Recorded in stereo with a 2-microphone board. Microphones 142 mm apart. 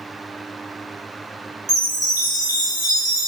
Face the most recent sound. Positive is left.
turn(degrees=25)  # may be behind; listen again after turning